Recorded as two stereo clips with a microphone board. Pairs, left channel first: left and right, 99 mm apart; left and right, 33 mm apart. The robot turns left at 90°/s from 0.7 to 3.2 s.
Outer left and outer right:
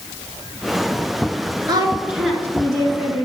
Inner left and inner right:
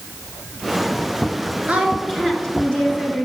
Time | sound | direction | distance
1.7 | a woman speaking | 130° right | 2.5 m